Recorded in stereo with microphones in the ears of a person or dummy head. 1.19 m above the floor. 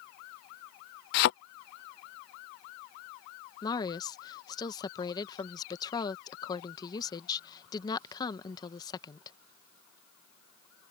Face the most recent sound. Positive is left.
turn(degrees=20)  # may be behind; listen again after turning